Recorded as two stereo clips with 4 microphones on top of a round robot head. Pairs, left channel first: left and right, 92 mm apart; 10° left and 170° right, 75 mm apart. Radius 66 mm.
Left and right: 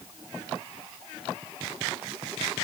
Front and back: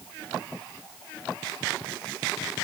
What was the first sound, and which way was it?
Only background noise.